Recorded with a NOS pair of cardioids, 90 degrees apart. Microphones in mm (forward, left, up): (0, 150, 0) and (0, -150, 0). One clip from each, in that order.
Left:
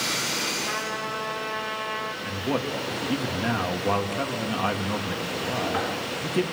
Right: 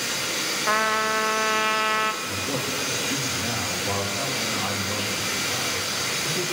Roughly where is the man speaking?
Ahead left.